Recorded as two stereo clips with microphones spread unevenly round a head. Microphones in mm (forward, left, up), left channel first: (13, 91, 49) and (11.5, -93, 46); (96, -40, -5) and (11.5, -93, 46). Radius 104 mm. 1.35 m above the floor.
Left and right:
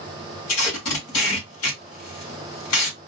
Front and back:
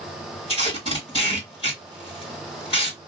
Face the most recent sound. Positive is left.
turn(degrees=105)